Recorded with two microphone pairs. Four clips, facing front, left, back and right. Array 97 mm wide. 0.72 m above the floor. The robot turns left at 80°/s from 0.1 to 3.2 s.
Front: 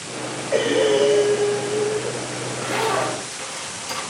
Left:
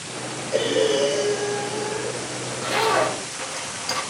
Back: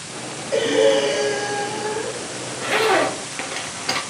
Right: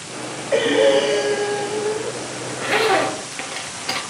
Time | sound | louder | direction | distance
0.5 | breathing | right 5 dB, back 2 dB | 80° right | 3 m
2.5 | a zipper | right 4 dB, back 4 dB | 85° right | 3 m